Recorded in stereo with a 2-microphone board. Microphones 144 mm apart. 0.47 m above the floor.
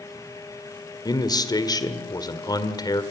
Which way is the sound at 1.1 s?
30° left (ahead or behind).